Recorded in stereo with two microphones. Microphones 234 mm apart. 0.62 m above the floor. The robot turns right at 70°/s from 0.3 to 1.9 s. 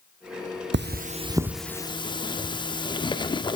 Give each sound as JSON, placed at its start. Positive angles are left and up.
{"t": 0.7, "sound": "cutlery clinking", "side_deg": -55, "distance_m": 0.5}